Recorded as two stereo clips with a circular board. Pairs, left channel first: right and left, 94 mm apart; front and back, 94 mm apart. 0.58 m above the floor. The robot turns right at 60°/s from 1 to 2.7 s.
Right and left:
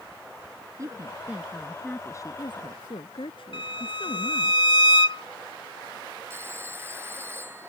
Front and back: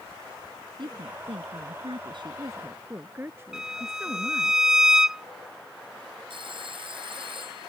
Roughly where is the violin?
Right.